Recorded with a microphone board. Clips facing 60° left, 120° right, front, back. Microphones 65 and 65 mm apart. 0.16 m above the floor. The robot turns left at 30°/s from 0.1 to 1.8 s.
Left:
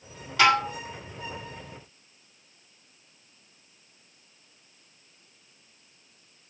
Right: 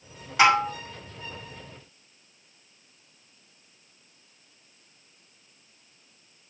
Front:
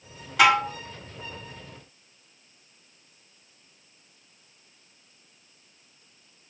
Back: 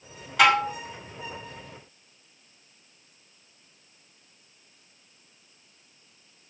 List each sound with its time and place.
0.4 s dishes clattering: 90° right, 1.0 m; by 0.8 s 100° right, 1.0 m